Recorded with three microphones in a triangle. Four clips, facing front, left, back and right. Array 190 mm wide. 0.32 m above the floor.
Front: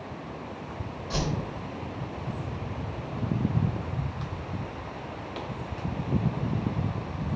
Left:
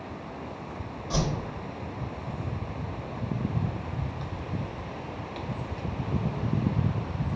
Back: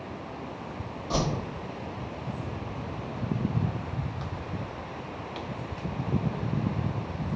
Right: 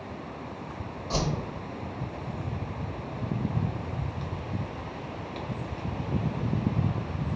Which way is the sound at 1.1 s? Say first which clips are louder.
Even, back 2 dB; 165° right.